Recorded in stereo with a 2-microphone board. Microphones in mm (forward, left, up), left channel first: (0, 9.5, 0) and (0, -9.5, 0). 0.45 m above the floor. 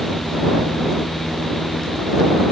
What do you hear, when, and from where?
Only background noise.